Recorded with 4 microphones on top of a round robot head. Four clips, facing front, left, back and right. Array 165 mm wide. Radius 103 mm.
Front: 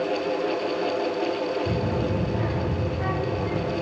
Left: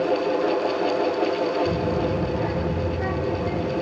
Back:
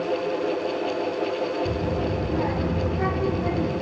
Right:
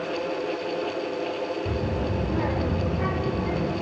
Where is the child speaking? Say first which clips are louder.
Left 5 dB, even; 145° right, 3.5 m; by 3.7 s 170° right, 2.5 m.